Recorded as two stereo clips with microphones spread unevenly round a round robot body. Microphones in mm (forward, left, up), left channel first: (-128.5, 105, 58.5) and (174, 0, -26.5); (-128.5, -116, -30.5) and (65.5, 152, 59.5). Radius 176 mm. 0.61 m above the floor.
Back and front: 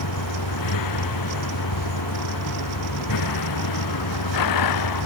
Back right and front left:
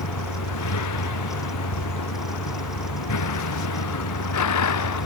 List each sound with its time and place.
0.0 s a vehicle: 165° right